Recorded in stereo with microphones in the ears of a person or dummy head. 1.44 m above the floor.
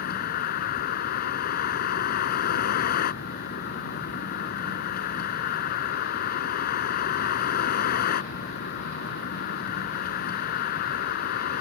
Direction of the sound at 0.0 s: 55° left (ahead or behind).